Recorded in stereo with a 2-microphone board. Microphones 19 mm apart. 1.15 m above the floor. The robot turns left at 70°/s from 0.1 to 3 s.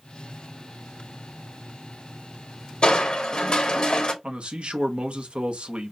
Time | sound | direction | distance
2.8 | crushing | 60° left (ahead or behind) | 1.1 m
4.2 | a man speaking | 75° right (ahead or behind) | 1.0 m